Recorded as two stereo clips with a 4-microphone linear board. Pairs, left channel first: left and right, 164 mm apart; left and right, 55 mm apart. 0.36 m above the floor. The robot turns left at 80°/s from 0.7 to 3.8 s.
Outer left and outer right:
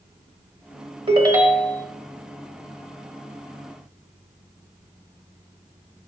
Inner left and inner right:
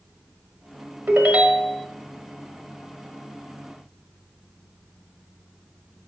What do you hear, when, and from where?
1.1 s a ringtone: 135° right, 1.0 m; by 1.9 s 160° left, 1.0 m